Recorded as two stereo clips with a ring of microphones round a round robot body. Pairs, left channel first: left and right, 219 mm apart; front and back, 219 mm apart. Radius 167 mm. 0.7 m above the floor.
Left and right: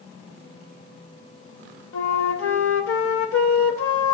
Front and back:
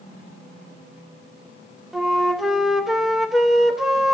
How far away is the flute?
About 0.6 m.